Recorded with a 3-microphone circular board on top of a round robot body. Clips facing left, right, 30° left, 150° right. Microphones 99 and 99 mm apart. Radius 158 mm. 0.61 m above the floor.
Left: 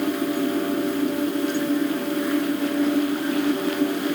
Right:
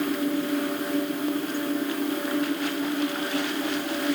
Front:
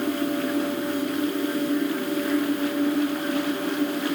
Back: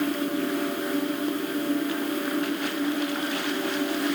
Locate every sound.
Only background noise.